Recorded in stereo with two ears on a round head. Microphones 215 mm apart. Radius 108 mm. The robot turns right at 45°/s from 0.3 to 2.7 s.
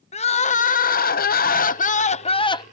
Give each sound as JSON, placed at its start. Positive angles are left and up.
{"t": 0.1, "sound": "crying", "azimuth_deg": 45}